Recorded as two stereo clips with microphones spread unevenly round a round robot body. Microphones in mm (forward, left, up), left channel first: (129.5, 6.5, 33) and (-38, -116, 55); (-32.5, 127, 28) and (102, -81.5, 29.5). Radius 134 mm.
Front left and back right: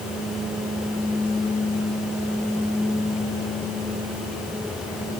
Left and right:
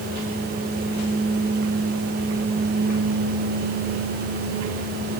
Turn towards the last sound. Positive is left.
No sound to turn to.